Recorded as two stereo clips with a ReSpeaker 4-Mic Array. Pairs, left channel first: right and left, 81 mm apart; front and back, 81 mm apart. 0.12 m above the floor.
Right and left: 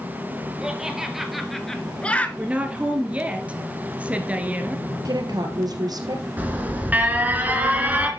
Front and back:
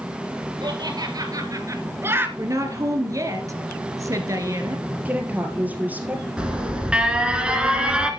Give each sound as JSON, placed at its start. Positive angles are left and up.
{"t": 0.6, "sound": "laughter", "azimuth_deg": 170, "distance_m": 2.5}
{"t": 2.4, "sound": "a woman speaking", "azimuth_deg": 160, "distance_m": 2.0}
{"t": 5.0, "sound": "a woman speaking", "azimuth_deg": 115, "distance_m": 2.5}
{"t": 6.4, "sound": "an alarm", "azimuth_deg": 120, "distance_m": 1.9}